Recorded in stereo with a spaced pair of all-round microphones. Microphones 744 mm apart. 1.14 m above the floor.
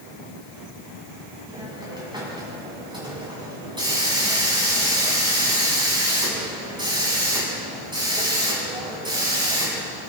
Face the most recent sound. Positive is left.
turn(degrees=-5)  # may be behind; listen again after turning